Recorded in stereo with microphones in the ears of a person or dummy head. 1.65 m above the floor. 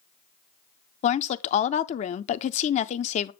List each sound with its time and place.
1.0 s a woman speaking: 35° left (ahead or behind), 0.6 m